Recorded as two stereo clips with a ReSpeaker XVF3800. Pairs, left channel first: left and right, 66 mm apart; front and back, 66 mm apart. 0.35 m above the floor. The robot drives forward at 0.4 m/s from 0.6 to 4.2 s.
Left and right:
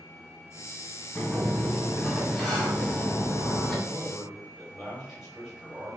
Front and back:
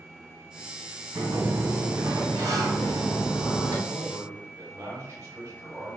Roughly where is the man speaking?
Behind.